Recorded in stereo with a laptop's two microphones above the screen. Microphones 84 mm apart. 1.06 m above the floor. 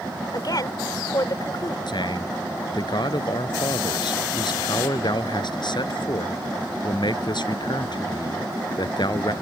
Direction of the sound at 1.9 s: 65° left (ahead or behind).